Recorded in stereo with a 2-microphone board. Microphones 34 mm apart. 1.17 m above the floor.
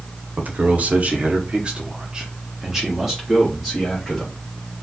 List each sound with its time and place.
0.4 s a man speaking: 45° right (ahead or behind), 0.9 m; by 4.5 s centre (ahead or behind), 2 m